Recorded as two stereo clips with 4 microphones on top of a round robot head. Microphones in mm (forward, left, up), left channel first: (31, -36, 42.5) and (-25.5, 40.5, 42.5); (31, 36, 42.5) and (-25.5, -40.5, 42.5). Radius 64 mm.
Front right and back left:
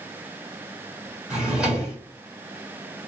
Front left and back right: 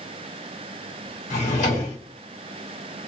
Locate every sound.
1.3 s a drawer: 45° left, 1.2 m